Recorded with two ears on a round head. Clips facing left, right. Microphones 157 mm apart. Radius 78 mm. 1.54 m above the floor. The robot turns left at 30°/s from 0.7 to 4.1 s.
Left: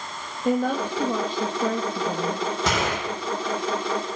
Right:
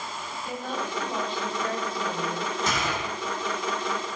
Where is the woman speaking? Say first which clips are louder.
Left 11 dB; 130° left, 2.5 m; by 2.5 s 75° left, 2.5 m.